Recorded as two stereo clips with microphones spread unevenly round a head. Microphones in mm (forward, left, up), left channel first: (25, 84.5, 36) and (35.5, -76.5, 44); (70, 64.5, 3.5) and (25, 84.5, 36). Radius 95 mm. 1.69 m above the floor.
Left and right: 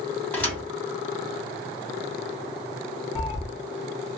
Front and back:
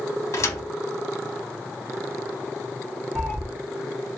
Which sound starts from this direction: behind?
A cat meowing, at 3.1 s.